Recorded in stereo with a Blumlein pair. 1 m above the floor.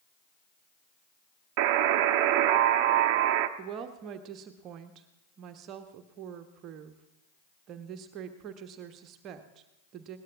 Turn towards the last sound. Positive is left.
turn(degrees=-35)